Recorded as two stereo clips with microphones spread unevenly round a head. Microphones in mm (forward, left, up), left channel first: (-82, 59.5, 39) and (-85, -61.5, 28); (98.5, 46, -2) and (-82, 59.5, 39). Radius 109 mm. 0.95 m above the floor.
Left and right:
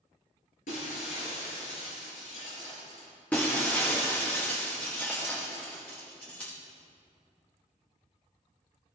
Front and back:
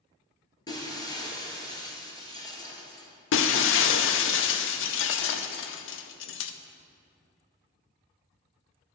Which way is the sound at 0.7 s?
70° left.